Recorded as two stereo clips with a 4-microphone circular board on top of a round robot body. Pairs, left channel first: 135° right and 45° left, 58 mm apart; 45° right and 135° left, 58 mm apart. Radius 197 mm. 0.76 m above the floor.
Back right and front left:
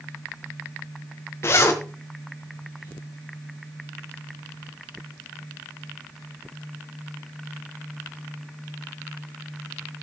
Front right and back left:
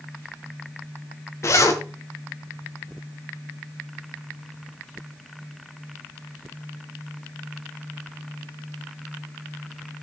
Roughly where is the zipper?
Right.